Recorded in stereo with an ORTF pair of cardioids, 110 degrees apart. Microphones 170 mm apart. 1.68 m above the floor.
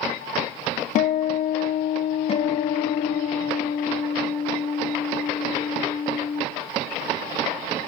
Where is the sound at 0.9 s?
50° left, 0.6 m.